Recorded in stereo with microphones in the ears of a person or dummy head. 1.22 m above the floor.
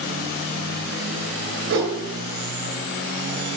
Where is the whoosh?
60° right (ahead or behind), 7.5 m.